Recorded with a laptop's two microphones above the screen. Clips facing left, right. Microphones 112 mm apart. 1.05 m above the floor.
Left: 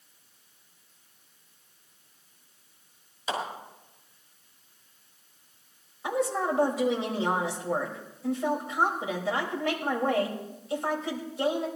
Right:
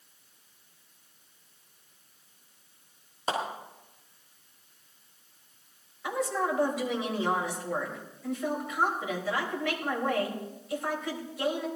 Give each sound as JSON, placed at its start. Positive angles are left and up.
{"t": 3.3, "sound": "a clap", "side_deg": -45, "distance_m": 5.5}
{"t": 6.0, "sound": "a woman speaking", "side_deg": 30, "distance_m": 4.5}